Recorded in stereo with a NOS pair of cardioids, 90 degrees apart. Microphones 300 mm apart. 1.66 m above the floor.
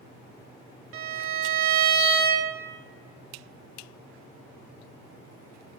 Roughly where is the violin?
Ahead right.